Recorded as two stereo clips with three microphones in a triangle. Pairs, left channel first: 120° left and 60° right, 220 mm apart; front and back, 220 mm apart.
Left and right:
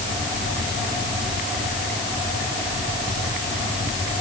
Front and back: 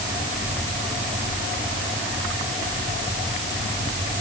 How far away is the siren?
No siren in this recording.